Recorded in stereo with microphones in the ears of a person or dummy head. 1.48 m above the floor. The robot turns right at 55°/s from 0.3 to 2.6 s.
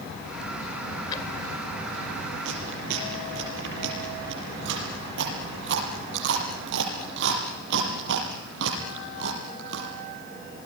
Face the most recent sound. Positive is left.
turn(degrees=-75)  # may be behind; listen again after turning